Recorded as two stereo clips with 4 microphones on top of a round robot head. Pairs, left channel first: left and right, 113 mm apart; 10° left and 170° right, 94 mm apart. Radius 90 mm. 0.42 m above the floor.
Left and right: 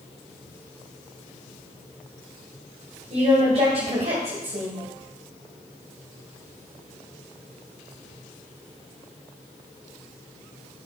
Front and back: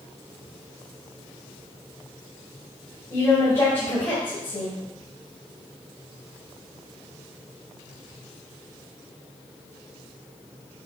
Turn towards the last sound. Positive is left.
turn(degrees=-50)